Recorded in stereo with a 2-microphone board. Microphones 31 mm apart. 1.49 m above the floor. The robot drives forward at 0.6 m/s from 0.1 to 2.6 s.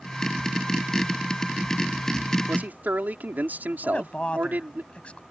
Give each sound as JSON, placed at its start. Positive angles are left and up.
{"t": 2.5, "sound": "a man speaking", "side_deg": -70}
{"t": 3.8, "sound": "a woman speaking", "side_deg": 40}